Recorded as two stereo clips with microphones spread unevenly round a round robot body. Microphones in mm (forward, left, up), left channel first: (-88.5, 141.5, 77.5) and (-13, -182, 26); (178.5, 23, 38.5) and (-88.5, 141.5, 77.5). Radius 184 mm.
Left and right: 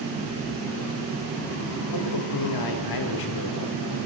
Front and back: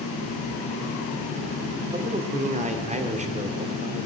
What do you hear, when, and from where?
1.9 s a man speaking: 85° left, 1.9 m